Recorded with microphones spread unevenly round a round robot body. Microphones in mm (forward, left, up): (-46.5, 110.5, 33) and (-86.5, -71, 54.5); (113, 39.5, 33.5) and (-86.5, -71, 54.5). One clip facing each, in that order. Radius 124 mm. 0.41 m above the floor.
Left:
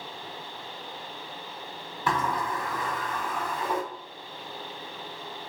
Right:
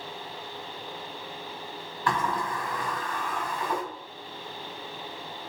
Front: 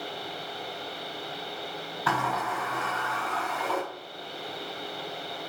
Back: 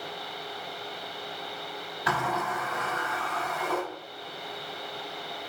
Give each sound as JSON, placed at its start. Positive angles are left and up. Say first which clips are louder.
{"t": 2.1, "sound": "a sliding door", "louder": "even, even", "azimuth_deg": 140, "distance_m": 1.5}